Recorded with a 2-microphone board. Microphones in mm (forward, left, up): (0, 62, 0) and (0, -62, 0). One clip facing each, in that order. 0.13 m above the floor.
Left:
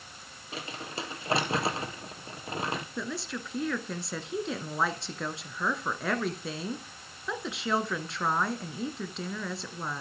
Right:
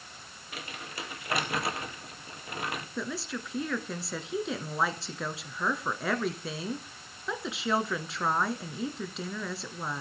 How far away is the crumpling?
About 2 m.